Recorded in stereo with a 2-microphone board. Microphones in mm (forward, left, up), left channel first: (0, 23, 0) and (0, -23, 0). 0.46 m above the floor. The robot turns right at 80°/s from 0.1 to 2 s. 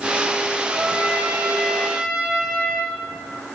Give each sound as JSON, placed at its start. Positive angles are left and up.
{"t": 0.7, "sound": "a trumpet", "azimuth_deg": -100, "distance_m": 2.5}